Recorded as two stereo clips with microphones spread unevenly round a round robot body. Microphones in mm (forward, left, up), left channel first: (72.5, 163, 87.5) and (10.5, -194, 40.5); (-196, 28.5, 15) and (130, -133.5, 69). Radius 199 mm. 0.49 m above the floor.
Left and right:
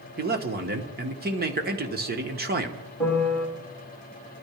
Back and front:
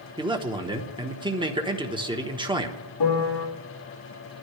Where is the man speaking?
105° right, 1.4 m.